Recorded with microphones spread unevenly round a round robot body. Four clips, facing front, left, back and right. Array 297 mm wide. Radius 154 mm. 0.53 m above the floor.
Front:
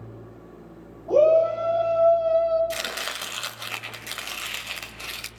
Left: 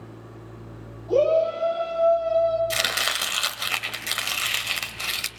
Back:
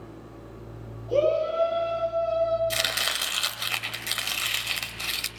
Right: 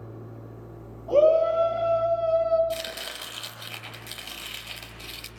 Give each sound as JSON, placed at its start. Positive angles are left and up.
{"t": 1.1, "sound": "a shout", "azimuth_deg": -20, "distance_m": 5.0}
{"t": 2.7, "sound": "chopping", "azimuth_deg": 100, "distance_m": 3.5}